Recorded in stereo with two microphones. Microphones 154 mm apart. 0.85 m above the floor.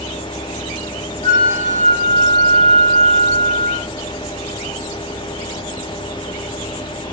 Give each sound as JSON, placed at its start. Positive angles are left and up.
{"t": 1.2, "sound": "a flute", "side_deg": -70, "distance_m": 1.3}